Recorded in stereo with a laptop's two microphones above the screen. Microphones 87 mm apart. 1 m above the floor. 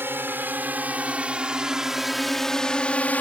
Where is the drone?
25° right (ahead or behind); by 3.2 s 20° left (ahead or behind).